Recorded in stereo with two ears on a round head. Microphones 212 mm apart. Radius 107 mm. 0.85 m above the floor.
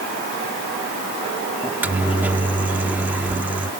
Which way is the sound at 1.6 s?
10° right (ahead or behind).